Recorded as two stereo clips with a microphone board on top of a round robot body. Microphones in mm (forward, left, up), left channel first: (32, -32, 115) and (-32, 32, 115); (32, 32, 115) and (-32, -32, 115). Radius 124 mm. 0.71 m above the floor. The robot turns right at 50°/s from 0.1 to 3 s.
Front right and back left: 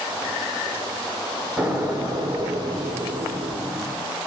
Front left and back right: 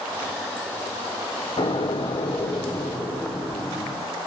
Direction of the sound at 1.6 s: 60° left.